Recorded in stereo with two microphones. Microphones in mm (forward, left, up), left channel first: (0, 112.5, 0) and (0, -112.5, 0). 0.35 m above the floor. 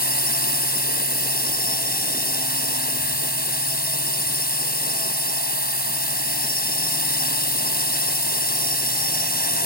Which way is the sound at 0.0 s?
45° left (ahead or behind).